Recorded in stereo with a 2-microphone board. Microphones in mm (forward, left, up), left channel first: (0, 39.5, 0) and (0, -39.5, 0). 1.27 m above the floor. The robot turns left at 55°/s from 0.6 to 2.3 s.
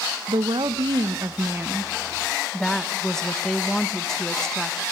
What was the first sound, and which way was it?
A woman speaking, 90° right.